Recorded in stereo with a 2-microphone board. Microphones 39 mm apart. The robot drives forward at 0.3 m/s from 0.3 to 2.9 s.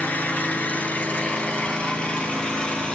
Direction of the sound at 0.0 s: 50° left (ahead or behind).